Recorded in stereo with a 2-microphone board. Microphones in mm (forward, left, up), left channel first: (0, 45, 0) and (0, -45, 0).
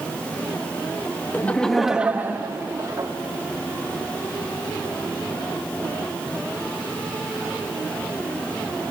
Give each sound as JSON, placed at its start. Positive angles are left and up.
{"t": 1.3, "sound": "laughter", "side_deg": 20, "distance_m": 1.1}